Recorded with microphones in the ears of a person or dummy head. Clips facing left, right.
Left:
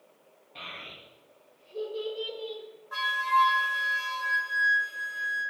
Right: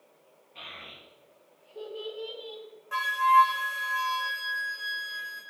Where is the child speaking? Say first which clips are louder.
Left 2 dB; 60° left (ahead or behind), 1.2 m.